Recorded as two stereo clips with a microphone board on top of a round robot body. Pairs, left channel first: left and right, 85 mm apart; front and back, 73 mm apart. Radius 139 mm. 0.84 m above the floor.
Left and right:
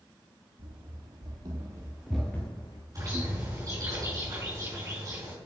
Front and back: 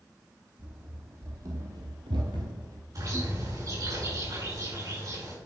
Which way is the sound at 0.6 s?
120° right.